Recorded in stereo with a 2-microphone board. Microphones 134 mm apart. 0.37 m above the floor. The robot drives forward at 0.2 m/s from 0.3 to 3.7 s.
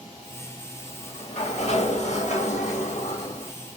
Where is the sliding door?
45° left (ahead or behind), 0.9 m; by 3.5 s 55° left (ahead or behind), 0.7 m.